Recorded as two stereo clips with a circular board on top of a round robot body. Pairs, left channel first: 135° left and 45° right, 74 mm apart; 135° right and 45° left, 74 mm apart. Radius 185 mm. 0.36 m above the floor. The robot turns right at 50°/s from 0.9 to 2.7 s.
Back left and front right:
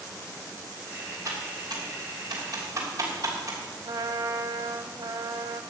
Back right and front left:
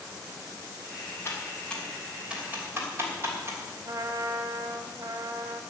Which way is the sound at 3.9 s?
5° right.